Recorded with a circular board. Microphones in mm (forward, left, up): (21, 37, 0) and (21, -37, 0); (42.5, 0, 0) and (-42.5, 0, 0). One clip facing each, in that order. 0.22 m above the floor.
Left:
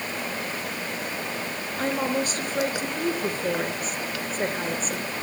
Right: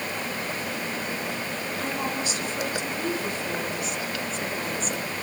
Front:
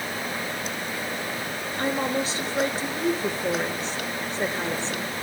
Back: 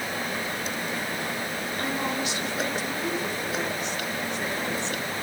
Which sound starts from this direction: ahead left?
A woman speaking, at 1.8 s.